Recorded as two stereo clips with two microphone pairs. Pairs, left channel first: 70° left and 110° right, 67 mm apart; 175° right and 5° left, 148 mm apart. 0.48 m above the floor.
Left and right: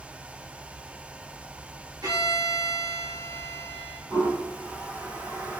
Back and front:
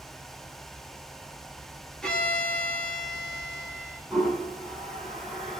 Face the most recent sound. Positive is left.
turn(degrees=-90)